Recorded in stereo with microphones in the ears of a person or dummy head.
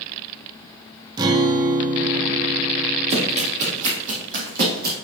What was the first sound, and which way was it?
A guitar, 25° right (ahead or behind).